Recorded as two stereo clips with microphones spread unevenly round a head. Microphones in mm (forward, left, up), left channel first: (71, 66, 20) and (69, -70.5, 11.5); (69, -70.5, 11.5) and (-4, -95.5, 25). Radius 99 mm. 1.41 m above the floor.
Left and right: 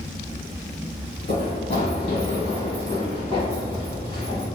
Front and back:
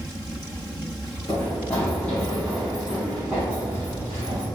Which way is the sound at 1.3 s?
80° left.